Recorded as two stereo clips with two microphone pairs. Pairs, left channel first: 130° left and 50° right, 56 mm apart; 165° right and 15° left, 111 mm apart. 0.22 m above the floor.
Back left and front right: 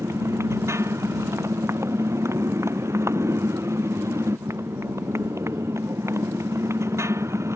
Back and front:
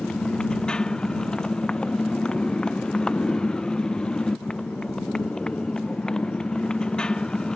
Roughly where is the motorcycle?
Right.